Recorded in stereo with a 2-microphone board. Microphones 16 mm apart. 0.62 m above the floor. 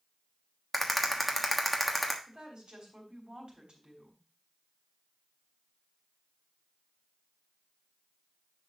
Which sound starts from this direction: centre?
A rattle, at 0.7 s.